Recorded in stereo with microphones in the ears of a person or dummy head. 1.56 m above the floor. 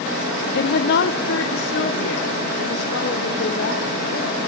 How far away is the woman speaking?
About 2.5 m.